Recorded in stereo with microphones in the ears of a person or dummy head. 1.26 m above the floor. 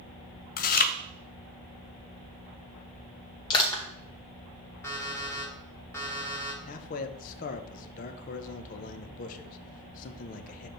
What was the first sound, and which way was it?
Chewing, 40° left (ahead or behind).